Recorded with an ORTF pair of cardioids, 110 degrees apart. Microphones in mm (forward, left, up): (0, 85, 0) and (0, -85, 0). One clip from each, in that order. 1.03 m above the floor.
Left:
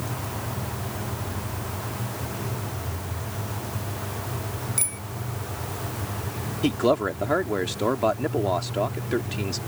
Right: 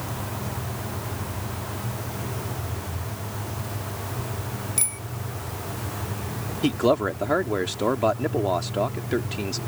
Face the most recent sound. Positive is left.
turn(degrees=-5)